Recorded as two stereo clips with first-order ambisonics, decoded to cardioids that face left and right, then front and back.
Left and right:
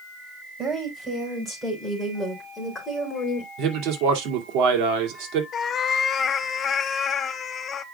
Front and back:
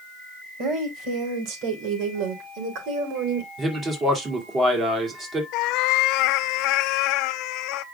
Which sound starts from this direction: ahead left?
A cat meowing, at 5.5 s.